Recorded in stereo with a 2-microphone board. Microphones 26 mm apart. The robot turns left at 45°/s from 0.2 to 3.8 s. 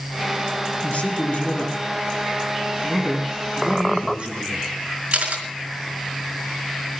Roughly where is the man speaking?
Left.